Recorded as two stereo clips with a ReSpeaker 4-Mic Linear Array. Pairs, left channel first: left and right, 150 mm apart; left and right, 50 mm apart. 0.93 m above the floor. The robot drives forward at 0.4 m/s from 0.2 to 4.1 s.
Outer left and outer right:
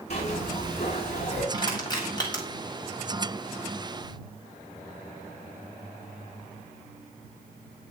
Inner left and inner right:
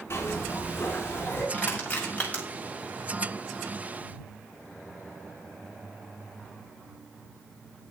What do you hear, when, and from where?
0.1 s a zipper: 50° left (ahead or behind), 8.5 m; by 1.4 s 45° left (ahead or behind), 8.5 m
1.5 s crushing: 30° left (ahead or behind), 6 m